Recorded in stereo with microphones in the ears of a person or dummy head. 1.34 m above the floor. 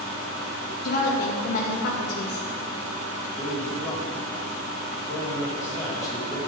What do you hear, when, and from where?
0.8 s a woman speaking: 50° left (ahead or behind), 1.9 m
3.4 s a man speaking: 15° left (ahead or behind), 4 m